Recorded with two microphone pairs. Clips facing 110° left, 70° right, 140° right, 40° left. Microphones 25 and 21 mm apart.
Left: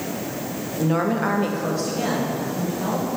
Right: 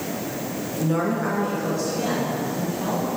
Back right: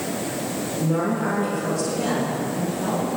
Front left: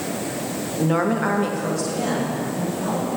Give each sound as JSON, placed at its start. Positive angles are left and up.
{"t": 0.8, "sound": "a woman speaking", "azimuth_deg": 35, "distance_m": 0.7}